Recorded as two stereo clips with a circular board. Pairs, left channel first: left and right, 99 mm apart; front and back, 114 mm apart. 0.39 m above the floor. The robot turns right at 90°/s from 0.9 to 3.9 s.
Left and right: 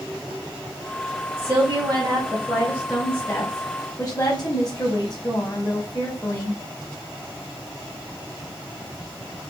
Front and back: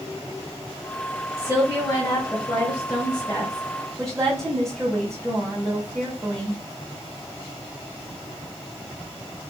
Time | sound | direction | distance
1.4 | a woman speaking | 145° right | 0.9 m